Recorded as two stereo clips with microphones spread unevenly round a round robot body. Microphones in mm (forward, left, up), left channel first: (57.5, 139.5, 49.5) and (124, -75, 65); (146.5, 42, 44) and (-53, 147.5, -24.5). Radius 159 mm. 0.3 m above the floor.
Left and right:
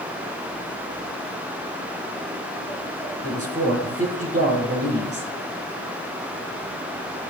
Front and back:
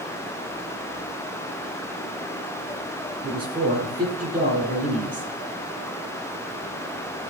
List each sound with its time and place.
3.2 s a man speaking: 140° right, 4 m